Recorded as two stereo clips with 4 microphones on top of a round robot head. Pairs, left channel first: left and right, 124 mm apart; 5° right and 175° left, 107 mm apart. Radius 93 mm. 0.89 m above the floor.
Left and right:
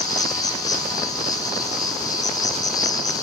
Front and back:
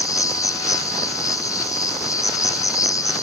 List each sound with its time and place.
0.0 s an insect: 40° left, 1.0 m